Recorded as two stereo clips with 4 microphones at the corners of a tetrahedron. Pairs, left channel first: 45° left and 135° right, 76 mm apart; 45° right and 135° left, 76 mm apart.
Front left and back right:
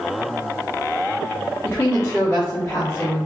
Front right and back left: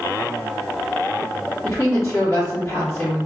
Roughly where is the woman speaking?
Ahead.